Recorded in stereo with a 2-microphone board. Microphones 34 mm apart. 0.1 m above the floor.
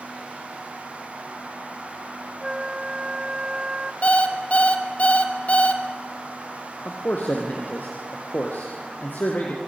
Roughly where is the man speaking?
Left.